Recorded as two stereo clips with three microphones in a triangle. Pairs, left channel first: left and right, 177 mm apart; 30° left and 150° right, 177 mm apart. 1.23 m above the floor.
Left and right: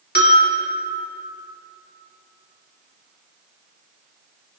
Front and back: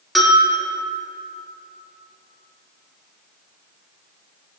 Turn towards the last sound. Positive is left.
turn(degrees=120)